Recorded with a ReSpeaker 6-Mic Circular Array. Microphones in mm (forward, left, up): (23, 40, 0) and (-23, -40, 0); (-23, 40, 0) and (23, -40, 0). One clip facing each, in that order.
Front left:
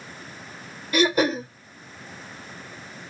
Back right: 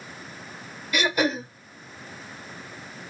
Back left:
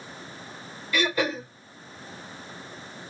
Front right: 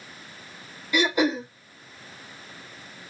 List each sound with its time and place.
0.9 s throat clearing: 10° left, 1.1 m